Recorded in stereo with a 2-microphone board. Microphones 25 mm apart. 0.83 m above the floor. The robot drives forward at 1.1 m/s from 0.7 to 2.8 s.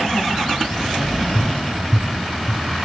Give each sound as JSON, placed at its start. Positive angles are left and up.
{"t": 1.4, "sound": "tapping", "side_deg": 35, "distance_m": 2.5}